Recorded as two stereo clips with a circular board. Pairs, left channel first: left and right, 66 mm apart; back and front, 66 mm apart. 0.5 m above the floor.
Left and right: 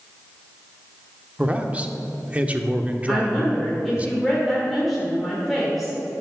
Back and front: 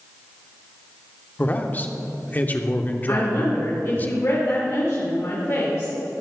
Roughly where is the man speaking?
Behind right.